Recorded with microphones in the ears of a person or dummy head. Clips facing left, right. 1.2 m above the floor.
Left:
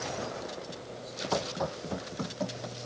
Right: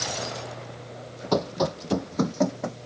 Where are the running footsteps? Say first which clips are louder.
Right 8 dB; 55° right (ahead or behind); by 2.8 s 75° right (ahead or behind).